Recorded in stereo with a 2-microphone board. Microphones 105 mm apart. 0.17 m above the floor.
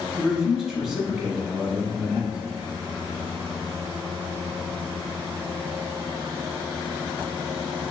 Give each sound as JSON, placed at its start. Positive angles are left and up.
{"t": 0.2, "sound": "a man speaking", "side_deg": -5, "distance_m": 1.1}